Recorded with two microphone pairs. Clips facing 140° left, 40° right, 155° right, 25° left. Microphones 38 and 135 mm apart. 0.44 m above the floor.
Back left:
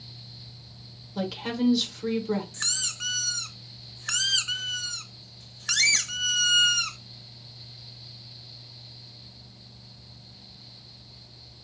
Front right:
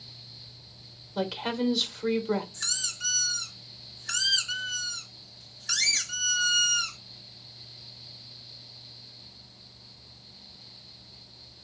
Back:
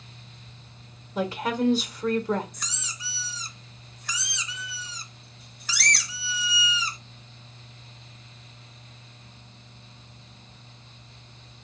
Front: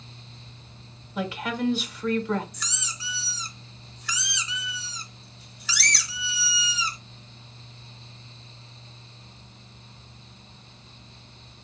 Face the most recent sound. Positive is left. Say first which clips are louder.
# back left 2 dB, front 1 dB
turn(degrees=165)